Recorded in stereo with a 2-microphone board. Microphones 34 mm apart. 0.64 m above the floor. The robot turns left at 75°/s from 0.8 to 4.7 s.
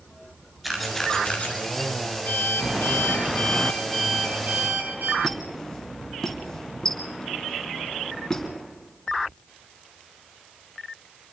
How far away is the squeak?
About 4 m.